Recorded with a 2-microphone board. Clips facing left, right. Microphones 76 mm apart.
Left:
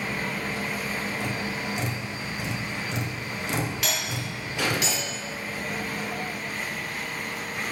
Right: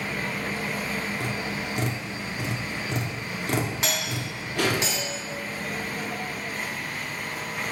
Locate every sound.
1.2 s tapping: 55° right (ahead or behind), 1.7 m
3.8 s a doorbell: 30° right (ahead or behind), 2.5 m